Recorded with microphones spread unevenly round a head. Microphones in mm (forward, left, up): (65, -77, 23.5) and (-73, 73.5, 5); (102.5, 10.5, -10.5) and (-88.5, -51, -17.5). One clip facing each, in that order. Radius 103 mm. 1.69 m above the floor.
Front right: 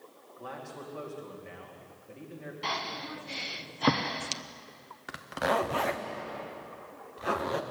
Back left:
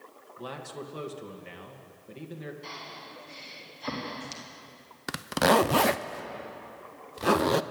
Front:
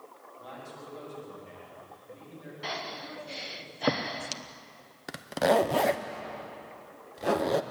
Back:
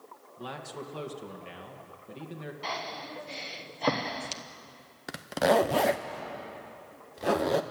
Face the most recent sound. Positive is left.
turn(degrees=110)